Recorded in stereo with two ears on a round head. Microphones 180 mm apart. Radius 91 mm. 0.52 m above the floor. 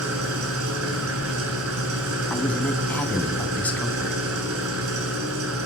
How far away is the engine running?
About 7 m.